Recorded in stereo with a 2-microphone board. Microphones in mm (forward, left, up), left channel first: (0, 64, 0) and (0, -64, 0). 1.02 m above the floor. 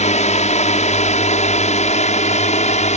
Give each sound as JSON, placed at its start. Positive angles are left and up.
{"t": 0.0, "sound": "a drone", "side_deg": 55}